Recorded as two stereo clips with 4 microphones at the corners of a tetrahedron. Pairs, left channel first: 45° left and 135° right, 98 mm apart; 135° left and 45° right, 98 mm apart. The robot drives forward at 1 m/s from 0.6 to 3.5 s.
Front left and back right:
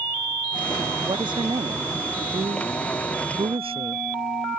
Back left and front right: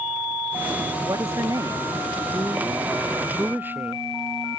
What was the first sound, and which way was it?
A woman speaking, 100° right.